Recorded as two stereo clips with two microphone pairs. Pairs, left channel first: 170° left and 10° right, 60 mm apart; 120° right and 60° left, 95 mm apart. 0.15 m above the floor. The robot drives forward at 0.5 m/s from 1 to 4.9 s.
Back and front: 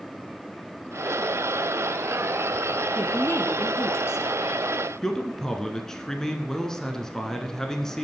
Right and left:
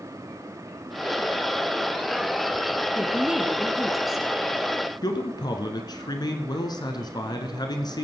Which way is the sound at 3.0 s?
130° left.